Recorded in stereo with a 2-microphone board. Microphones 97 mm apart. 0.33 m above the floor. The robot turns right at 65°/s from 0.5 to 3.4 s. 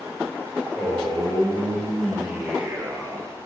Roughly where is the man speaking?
Left.